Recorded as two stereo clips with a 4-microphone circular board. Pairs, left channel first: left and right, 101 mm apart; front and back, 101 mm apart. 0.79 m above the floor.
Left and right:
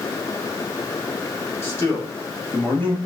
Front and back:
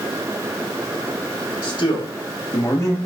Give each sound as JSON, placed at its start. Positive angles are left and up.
{"t": 1.6, "sound": "a man speaking", "azimuth_deg": 30, "distance_m": 1.9}